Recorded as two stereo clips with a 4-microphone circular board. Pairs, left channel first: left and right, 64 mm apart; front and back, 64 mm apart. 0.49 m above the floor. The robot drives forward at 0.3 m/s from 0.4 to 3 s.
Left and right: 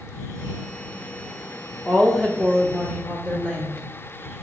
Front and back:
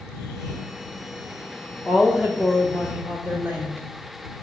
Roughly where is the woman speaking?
Behind left.